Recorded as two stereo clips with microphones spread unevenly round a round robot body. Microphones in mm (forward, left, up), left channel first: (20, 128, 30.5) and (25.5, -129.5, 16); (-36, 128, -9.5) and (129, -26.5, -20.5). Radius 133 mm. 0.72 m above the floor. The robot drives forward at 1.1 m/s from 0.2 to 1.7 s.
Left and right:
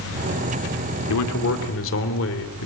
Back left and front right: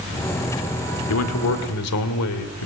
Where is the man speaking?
120° left, 2.0 m; by 2.7 s 135° left, 2.5 m.